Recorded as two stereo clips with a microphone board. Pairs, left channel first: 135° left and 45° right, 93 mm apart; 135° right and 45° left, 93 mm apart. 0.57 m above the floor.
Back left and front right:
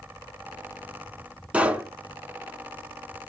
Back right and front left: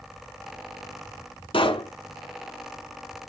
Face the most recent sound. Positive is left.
turn(degrees=-120)